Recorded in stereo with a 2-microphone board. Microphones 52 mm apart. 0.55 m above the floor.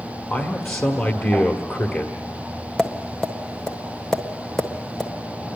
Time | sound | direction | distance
0.3 | a man speaking | 45° left (ahead or behind) | 1.5 m
2.8 | tapping | 10° left (ahead or behind) | 1.4 m